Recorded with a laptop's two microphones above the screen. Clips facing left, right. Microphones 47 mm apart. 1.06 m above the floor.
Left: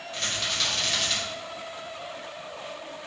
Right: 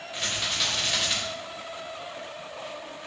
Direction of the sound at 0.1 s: 10° right (ahead or behind).